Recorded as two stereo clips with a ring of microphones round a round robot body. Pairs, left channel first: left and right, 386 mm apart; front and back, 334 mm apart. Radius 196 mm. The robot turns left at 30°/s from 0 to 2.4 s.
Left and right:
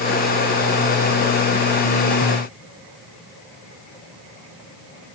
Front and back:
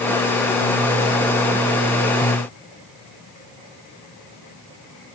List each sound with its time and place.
Only background noise.